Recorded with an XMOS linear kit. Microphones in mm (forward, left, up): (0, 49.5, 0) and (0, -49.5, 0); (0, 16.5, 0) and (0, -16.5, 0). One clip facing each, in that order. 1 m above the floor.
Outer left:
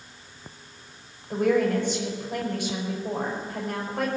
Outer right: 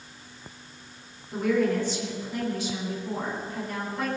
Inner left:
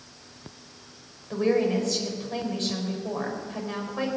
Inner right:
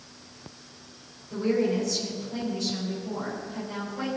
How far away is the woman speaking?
About 5 m.